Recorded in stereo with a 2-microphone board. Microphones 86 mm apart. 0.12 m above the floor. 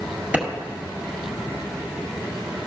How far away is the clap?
About 1.6 m.